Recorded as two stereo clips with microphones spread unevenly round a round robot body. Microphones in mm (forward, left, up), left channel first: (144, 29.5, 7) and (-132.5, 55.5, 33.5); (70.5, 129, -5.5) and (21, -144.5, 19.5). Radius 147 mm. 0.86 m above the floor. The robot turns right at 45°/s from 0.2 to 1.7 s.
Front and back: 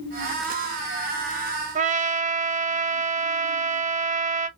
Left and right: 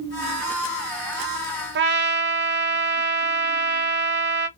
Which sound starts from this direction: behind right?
A trumpet, at 1.8 s.